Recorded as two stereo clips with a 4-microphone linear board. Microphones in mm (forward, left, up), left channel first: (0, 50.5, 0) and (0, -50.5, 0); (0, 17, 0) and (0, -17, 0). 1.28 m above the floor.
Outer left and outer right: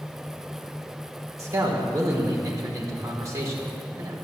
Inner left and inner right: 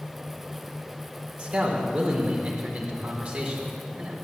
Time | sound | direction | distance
1.4 | a man speaking | 30° right (ahead or behind) | 4.5 m